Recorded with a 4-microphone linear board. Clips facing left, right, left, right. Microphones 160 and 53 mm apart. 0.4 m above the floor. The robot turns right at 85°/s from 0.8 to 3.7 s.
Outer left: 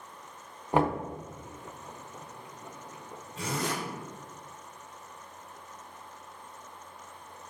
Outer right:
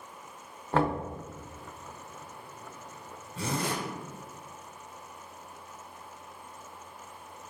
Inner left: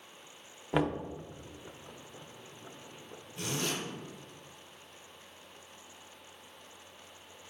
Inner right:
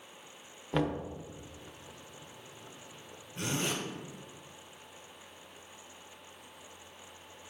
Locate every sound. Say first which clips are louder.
0.7 s knocking: outer left 1 dB, inner left 1 dB; 15° left (ahead or behind), 0.5 m; by 1.0 s 5° left (ahead or behind), 0.5 m
3.4 s a zipper: outer right 1 dB, inner right 1 dB; 35° right (ahead or behind), 1.3 m; by 3.8 s 20° right (ahead or behind), 1.3 m